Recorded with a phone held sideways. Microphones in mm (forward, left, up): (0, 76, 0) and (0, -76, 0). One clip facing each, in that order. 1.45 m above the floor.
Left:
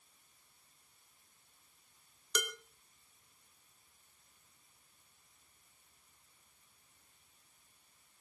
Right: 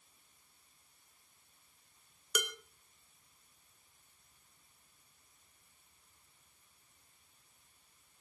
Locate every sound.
2.4 s dishes clattering: 10° right (ahead or behind), 2.5 m